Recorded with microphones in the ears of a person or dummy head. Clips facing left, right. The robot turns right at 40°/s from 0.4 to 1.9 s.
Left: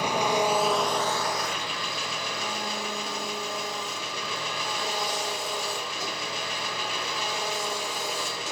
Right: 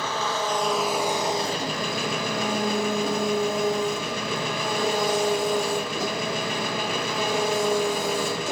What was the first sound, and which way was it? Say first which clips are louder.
An engine running: left 3 dB; 165° left.